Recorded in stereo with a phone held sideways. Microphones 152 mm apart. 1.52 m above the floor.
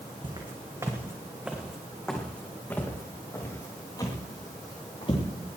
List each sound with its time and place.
0.2 s footsteps: 35° right (ahead or behind), 3.5 m; by 5.2 s 35° left (ahead or behind), 7 m